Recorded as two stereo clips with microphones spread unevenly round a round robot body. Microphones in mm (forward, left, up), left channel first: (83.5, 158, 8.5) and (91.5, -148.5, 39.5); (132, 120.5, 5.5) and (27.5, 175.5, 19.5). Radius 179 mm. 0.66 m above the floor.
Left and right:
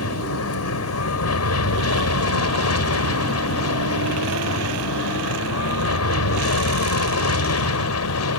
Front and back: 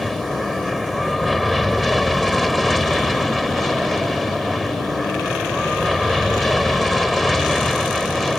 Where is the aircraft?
60° left.